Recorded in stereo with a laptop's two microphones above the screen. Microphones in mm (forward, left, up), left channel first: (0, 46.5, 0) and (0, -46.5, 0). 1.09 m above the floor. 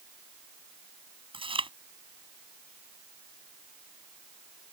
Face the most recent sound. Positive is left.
turn(degrees=-80)